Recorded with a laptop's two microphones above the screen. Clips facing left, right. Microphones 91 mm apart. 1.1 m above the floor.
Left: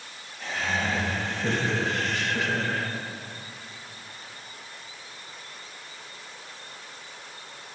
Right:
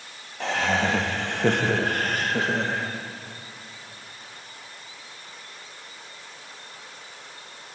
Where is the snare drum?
I don't hear a snare drum.